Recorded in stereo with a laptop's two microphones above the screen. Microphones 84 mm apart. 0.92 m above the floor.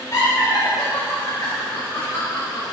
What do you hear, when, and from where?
0.1 s laughter: 40° left (ahead or behind), 5 m